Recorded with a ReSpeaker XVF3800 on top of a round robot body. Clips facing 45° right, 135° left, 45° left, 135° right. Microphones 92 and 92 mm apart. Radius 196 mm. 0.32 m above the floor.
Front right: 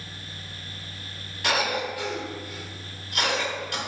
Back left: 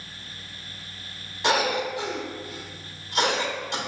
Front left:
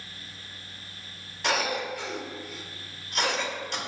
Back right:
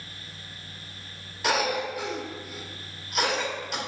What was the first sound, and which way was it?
A cough, 150° left.